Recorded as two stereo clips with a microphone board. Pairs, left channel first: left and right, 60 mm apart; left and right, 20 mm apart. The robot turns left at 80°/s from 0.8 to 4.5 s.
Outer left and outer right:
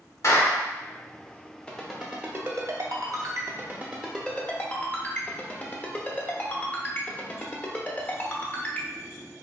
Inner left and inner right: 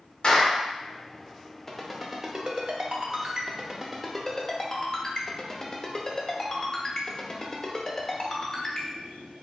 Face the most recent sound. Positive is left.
turn(degrees=30)  # may be behind; listen again after turning